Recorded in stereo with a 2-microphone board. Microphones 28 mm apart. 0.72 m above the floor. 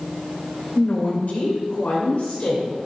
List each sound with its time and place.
0.8 s a woman speaking: 65° left (ahead or behind), 2.5 m